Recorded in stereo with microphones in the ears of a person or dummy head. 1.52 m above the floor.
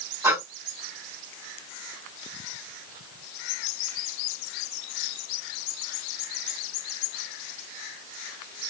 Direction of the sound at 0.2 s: 15° right (ahead or behind).